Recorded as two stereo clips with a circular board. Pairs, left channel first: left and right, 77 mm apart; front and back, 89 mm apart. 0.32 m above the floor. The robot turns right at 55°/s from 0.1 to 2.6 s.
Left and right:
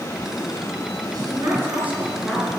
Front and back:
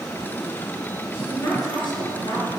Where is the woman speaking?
65° right, 5 m; by 2.5 s 10° left, 5 m.